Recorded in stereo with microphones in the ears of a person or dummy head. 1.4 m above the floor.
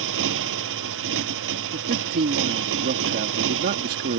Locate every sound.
0.0 s a motorcycle: 75° right (ahead or behind)
1.7 s a man speaking: 55° right (ahead or behind)